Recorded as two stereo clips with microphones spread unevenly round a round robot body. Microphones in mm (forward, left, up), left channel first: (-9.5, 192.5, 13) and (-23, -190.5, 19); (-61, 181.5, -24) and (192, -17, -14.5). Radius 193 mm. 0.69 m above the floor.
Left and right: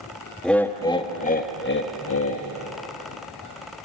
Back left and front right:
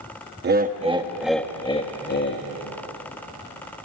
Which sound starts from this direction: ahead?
Laughter, at 0.4 s.